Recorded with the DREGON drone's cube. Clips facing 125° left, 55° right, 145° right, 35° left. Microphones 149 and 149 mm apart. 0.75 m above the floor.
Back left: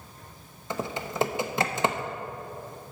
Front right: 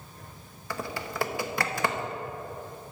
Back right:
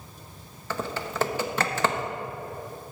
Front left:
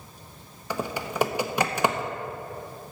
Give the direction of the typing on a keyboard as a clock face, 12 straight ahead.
9 o'clock.